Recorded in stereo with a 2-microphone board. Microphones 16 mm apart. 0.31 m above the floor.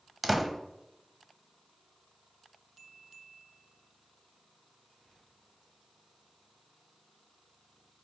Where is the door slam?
5° right (ahead or behind), 1.1 m.